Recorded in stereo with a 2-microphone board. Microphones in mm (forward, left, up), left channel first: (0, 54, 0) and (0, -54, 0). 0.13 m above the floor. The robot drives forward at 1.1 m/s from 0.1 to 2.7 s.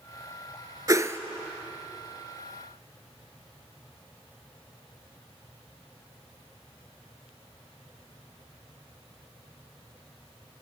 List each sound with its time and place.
0.9 s a whoosh: 35° right (ahead or behind), 0.7 m; by 1.2 s 25° right (ahead or behind), 0.9 m